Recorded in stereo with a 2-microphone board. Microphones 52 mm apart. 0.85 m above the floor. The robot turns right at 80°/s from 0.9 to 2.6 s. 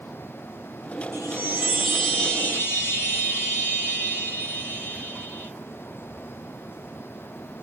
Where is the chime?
65° right, 2 m; by 5.5 s 55° left, 2 m.